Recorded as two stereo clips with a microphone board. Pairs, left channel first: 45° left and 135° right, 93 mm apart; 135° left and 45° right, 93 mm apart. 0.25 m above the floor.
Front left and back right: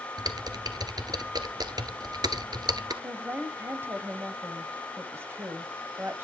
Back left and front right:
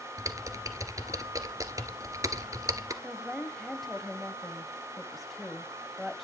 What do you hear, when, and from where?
0.2 s typing on a keyboard: 95° right, 1.1 m
3.0 s a woman speaking: 140° right, 1.1 m